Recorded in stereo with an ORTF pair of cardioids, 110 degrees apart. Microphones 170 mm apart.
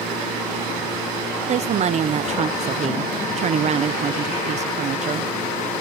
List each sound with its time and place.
1.5 s a woman speaking: 40° right